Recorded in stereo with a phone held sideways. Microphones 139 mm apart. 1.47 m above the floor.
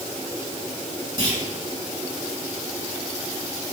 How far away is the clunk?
About 3 m.